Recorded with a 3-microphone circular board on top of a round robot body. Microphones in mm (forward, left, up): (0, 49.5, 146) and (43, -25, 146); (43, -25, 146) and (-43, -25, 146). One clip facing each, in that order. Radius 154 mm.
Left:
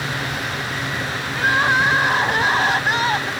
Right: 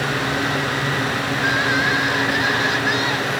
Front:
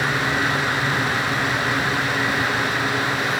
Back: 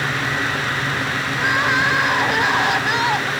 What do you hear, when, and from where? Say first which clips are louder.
1.3 s crying: left 4 dB, back 3 dB; 170° left